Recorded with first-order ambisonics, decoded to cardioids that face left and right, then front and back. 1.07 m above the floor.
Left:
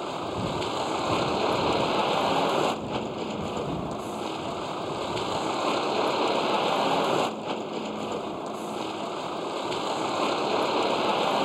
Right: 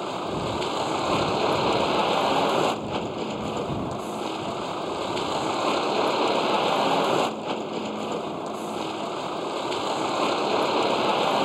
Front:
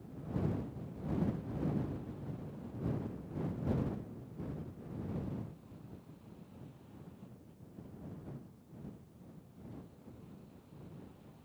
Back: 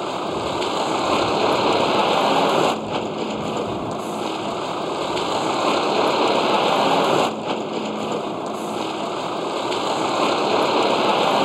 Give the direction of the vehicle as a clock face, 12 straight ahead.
6 o'clock.